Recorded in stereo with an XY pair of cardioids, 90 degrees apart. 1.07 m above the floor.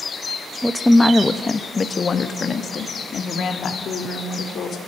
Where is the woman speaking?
Straight ahead, 1.1 m; by 4.8 s 75° left, 3 m.